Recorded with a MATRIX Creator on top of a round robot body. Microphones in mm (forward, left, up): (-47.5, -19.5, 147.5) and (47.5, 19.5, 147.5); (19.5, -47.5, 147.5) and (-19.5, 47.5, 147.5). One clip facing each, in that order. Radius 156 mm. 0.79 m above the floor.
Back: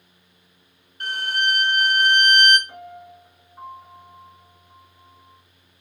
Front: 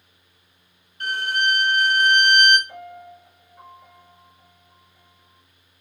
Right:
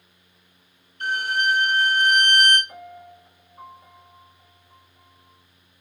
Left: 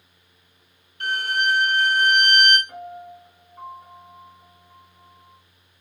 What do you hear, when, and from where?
1.0 s a violin: 155° left, 3 m
2.7 s a piano: 150° left, 3.5 m